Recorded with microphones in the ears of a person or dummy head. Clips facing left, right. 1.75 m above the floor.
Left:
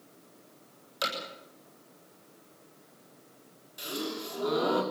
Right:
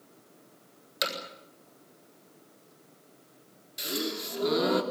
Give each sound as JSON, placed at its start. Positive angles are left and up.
{"t": 1.0, "sound": "hammering", "side_deg": -15, "distance_m": 7.5}
{"t": 3.8, "sound": "a gasp", "side_deg": -15, "distance_m": 3.0}